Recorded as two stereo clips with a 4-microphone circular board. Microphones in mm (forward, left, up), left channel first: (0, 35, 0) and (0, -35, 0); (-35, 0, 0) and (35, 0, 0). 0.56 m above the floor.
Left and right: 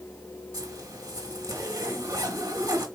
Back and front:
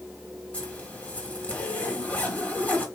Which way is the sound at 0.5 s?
110° right.